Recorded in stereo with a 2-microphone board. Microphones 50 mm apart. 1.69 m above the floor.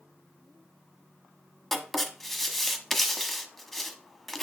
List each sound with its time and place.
1.7 s writing: centre (ahead or behind), 1.2 m